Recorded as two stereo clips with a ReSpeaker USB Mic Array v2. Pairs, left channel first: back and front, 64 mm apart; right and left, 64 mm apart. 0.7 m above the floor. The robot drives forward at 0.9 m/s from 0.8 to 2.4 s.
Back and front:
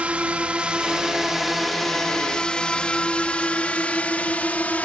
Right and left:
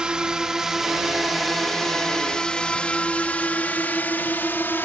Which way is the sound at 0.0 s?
35° left.